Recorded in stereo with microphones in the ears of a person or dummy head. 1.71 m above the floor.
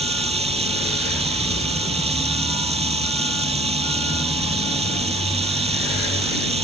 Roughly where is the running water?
Right.